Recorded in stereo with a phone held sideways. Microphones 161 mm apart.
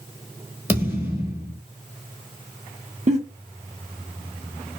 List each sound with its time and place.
0.7 s a thud: 15° right (ahead or behind), 1.0 m
3.1 s a giggle: 45° right (ahead or behind), 0.7 m